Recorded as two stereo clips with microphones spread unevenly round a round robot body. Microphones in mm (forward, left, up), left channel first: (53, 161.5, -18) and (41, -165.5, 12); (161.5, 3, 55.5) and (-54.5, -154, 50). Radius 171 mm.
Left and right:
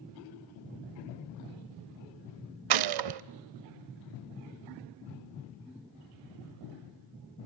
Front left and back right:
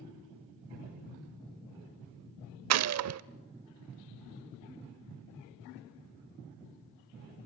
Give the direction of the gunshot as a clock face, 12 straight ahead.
4 o'clock.